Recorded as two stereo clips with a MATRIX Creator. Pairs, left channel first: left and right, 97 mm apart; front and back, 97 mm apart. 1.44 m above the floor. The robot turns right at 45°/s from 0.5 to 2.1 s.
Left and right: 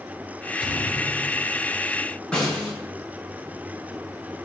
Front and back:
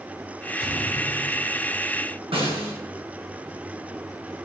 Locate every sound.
0.6 s a thud: 60° left, 5.5 m; by 1.5 s 100° left, 5.5 m
2.3 s a snare drum: 170° left, 8 m